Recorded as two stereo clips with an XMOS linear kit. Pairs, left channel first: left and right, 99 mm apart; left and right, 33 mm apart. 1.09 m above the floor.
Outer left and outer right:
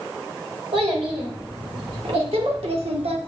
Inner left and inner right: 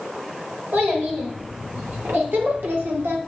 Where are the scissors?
No scissors in this recording.